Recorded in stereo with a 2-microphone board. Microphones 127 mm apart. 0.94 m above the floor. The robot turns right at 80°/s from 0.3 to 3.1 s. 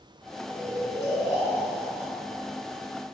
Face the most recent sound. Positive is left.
turn(degrees=-70)